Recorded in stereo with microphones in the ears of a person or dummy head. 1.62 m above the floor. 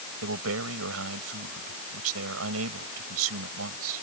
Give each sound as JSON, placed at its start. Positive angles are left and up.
{"t": 0.2, "sound": "a man speaking", "side_deg": -85}